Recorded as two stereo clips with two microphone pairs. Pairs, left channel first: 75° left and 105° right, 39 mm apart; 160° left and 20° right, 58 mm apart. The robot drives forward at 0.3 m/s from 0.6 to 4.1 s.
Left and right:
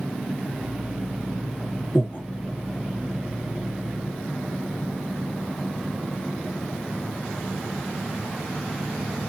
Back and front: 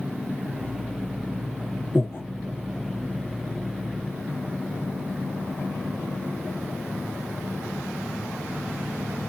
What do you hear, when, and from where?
1.9 s breathing: 110° left, 0.6 m; by 2.2 s 120° left, 0.6 m